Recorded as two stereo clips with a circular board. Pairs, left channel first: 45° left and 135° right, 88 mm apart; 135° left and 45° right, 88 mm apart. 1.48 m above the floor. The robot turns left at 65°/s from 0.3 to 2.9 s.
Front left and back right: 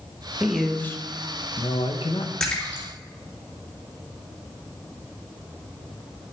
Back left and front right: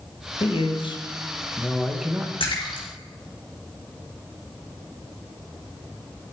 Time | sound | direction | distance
0.4 | a man speaking | 145° left | 1.4 m
2.4 | a splash | 125° left | 3 m